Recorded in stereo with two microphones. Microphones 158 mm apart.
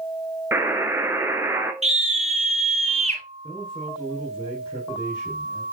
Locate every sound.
0.5 s a buzzer: 15° right (ahead or behind), 1.0 m
1.8 s a scream: 45° right (ahead or behind), 2 m
3.4 s a man speaking: 30° left (ahead or behind), 3.5 m